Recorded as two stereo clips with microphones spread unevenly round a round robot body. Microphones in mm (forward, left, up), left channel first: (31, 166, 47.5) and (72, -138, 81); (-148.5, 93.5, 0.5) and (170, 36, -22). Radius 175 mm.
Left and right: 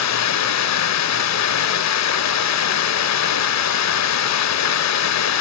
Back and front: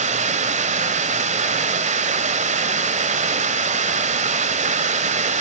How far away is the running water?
About 0.9 m.